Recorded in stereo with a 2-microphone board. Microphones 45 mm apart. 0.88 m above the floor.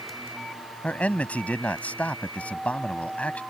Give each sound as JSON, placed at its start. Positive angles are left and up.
{"t": 0.8, "sound": "a man speaking", "side_deg": 35}